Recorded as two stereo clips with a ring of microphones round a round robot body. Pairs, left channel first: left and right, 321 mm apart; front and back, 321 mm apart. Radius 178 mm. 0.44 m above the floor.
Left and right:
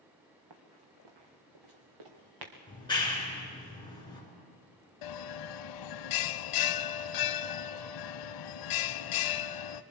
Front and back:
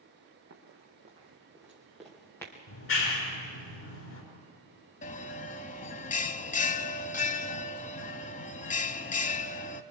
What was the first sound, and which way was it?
Running footsteps, 115° right.